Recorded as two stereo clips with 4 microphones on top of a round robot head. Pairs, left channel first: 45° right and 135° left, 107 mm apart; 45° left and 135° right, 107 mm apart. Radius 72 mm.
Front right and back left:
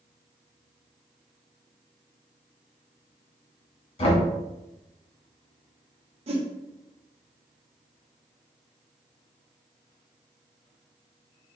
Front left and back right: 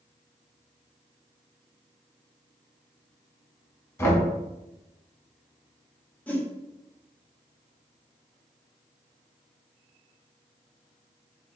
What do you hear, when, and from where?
4.0 s knocking: 15° right, 1.1 m
6.3 s a whoosh: 120° left, 0.7 m